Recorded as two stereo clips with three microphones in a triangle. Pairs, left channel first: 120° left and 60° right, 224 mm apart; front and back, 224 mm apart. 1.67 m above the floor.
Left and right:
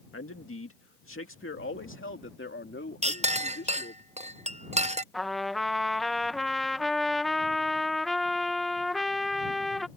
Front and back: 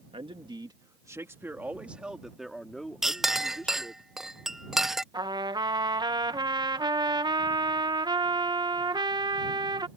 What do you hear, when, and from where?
0.1 s a man speaking: 115° left; by 4.0 s 80° left
3.0 s a clink: 95° right
5.1 s a trumpet: 150° right